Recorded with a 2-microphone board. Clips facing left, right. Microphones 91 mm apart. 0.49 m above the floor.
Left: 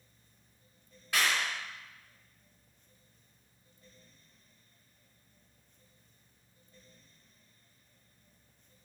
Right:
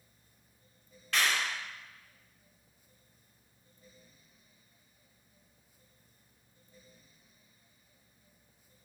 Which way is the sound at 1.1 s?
10° left (ahead or behind).